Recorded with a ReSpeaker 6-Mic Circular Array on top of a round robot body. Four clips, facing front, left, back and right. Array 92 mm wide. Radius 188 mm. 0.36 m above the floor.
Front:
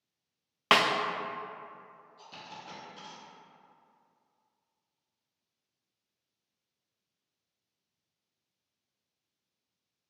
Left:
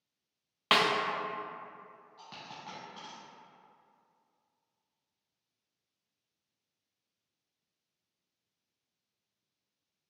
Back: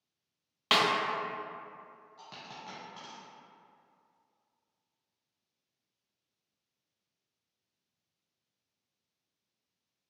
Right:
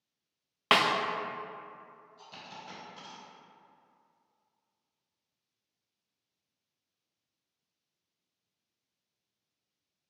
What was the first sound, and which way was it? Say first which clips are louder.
A snare drum: right 2 dB, front 3 dB; 30° right.